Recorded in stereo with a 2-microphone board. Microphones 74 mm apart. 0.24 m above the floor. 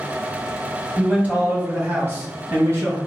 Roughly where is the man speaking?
Centre.